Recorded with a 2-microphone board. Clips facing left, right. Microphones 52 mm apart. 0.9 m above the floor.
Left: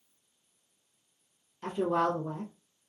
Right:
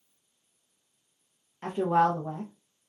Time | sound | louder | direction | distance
1.6 | a woman speaking | right 4 dB | 35° right (ahead or behind) | 0.7 m